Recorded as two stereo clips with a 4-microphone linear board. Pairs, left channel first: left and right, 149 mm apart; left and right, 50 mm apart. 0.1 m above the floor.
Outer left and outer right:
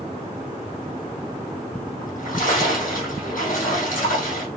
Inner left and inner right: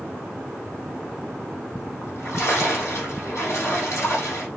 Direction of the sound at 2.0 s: 65° left (ahead or behind).